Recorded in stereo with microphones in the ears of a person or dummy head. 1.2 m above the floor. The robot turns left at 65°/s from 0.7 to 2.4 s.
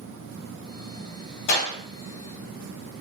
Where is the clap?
65° left (ahead or behind), 3 m; by 1.8 s 85° left, 3 m.